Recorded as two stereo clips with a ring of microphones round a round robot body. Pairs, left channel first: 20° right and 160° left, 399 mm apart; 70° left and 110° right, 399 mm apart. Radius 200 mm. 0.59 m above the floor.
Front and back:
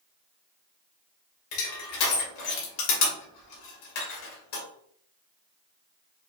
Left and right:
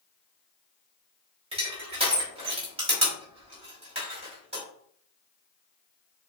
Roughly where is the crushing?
Ahead right.